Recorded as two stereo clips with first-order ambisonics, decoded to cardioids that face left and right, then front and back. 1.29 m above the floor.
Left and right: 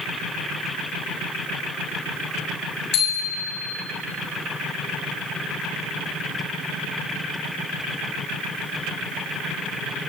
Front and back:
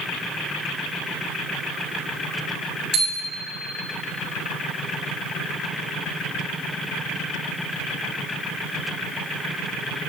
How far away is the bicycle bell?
About 6.5 m.